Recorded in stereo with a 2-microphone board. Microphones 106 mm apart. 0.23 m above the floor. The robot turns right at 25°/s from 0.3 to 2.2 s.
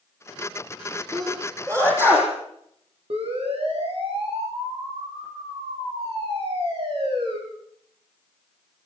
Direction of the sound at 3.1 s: 70° right (ahead or behind).